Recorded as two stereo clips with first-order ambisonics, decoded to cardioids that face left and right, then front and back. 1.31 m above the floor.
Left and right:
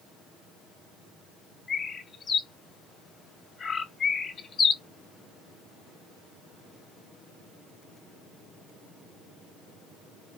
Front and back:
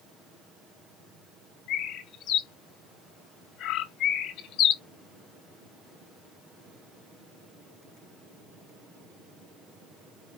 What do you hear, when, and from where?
1.7 s a bird: 25° left, 0.7 m